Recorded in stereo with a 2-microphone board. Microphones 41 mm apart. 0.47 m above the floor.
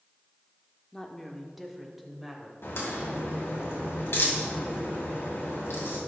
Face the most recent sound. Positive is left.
turn(degrees=75)  # may be behind; listen again after turning